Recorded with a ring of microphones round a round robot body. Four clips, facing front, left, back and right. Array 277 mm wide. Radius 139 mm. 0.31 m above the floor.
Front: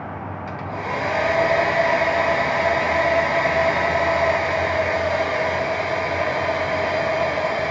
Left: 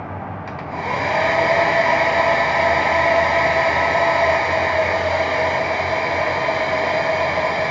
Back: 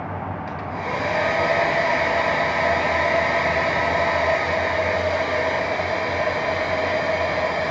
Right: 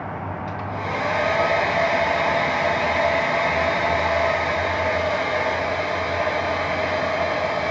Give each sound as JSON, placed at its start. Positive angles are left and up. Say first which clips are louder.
{"t": 0.5, "sound": "a hair dryer", "louder": "left 4 dB, front 2 dB", "azimuth_deg": 85, "distance_m": 2.5}